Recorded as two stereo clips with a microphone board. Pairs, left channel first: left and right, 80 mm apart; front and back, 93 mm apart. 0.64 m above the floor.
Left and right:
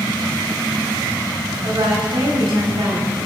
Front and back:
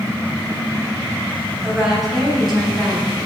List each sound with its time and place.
1.6 s a woman speaking: 95° right, 4.5 m; by 3.2 s 85° right, 5 m